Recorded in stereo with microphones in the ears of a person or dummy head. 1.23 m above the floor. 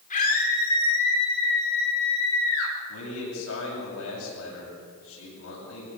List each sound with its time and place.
0.1 s a scream: 35° left (ahead or behind), 4 m; by 2.7 s 75° left (ahead or behind), 5 m
2.9 s a man speaking: 70° left (ahead or behind), 8 m